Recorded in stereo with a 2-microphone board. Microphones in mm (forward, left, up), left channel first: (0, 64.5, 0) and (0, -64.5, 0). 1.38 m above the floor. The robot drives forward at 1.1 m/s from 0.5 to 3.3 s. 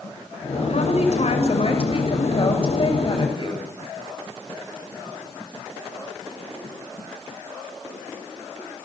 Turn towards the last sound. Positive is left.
turn(degrees=45)  # may be behind; listen again after turning